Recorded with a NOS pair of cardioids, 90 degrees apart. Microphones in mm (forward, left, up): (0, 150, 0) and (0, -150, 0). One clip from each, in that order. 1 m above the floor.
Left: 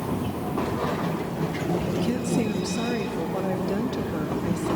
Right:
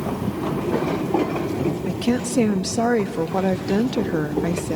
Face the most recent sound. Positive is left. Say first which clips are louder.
# right 3 dB
turn(degrees=-50)